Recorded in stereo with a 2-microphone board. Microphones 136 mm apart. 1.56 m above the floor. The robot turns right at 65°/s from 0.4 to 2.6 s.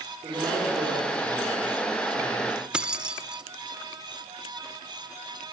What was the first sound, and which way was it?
A man speaking, 145° right.